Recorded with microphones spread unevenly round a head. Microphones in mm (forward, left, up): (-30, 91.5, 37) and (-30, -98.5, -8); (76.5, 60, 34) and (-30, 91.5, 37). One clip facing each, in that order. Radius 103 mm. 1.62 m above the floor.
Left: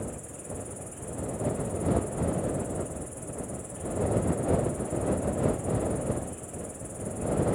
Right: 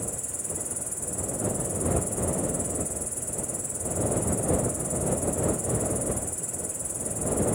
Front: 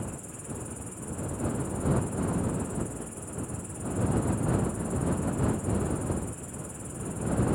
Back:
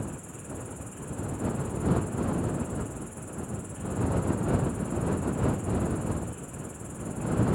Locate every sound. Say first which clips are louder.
0.0 s an insect: even, back 1 dB; 95° right